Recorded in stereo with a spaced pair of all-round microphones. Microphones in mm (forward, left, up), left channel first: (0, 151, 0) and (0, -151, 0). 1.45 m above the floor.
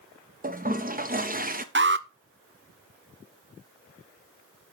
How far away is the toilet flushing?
About 0.8 m.